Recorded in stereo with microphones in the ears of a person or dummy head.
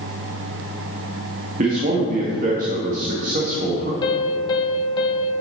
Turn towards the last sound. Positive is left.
turn(degrees=30)  # may be behind; listen again after turning